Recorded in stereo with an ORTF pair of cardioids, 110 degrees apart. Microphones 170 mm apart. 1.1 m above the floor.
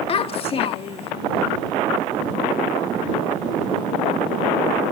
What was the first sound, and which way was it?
A child speaking, 35° left.